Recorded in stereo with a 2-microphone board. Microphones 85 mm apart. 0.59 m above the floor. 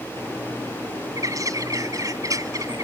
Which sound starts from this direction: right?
A bird, at 1.2 s.